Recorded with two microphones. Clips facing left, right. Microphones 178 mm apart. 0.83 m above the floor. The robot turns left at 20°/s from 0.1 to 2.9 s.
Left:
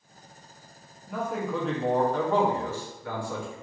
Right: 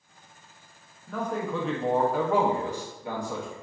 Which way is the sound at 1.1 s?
15° left.